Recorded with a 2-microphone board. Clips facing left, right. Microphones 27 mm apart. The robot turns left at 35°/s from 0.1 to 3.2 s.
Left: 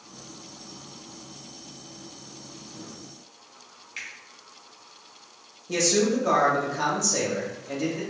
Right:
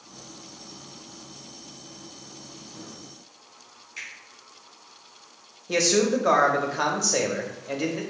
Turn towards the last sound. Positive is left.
turn(degrees=-25)  # may be behind; listen again after turning